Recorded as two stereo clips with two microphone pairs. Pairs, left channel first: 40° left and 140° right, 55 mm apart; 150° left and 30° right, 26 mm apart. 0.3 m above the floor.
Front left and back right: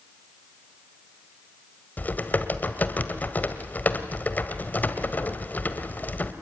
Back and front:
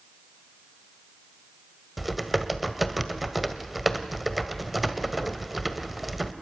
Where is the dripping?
I don't hear dripping.